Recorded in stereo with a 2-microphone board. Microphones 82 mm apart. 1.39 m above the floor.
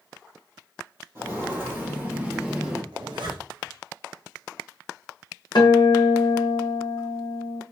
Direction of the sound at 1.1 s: 30° right (ahead or behind).